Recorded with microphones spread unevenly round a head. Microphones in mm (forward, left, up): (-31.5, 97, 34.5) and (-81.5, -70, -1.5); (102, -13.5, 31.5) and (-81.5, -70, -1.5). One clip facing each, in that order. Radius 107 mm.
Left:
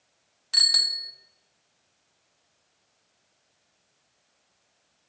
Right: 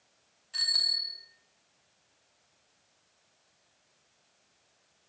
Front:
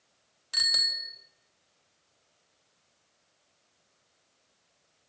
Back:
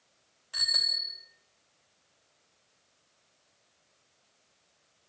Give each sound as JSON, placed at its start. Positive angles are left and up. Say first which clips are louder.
{"t": 0.5, "sound": "a bicycle bell", "louder": "left 5 dB, front 2 dB", "azimuth_deg": 70, "distance_m": 3.0}